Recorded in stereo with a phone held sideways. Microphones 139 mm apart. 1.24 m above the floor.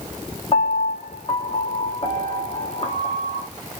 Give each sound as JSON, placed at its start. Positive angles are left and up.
{"t": 0.5, "sound": "a piano", "side_deg": 40, "distance_m": 0.7}